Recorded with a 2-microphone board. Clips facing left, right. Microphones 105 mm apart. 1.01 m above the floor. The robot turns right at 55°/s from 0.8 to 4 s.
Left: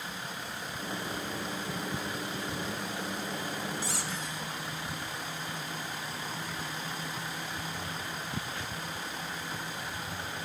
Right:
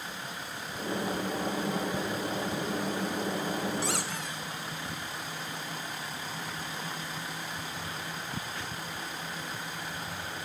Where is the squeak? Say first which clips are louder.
Right 3 dB; 70° right (ahead or behind), 1.1 m; by 4.4 s 60° right (ahead or behind), 1.1 m.